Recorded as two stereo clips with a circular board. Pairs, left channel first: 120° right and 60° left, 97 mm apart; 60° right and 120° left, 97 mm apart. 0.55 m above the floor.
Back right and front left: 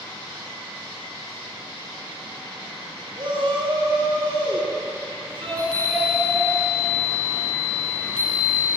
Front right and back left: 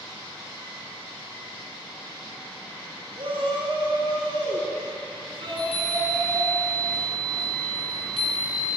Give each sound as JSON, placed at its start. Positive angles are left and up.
{"t": 3.2, "sound": "a shout", "azimuth_deg": 90, "distance_m": 6.5}
{"t": 5.5, "sound": "a chime", "azimuth_deg": -40, "distance_m": 4.0}